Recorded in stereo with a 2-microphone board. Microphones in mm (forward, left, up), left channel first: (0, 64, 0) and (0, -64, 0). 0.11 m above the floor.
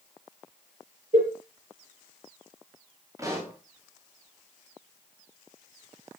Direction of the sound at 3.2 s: 25° right (ahead or behind).